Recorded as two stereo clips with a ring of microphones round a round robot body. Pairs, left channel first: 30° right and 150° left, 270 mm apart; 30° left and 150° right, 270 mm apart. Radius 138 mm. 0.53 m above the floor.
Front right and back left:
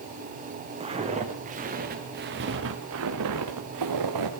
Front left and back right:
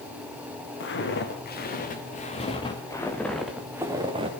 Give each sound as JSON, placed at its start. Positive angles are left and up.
{"t": 0.8, "sound": "footsteps", "azimuth_deg": 80, "distance_m": 6.0}